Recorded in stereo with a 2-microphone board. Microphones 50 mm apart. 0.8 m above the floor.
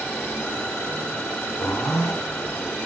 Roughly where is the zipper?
Left.